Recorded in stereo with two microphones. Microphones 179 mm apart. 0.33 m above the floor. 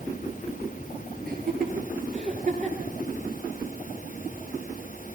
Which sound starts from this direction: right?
Laughter, at 1.3 s.